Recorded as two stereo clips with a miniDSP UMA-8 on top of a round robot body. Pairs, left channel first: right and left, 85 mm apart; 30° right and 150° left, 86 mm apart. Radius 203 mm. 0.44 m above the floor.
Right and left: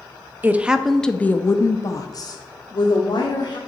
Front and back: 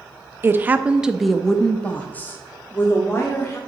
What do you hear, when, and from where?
0.4 s a woman speaking: 125° left, 0.7 m; by 3.6 s 90° right, 1.5 m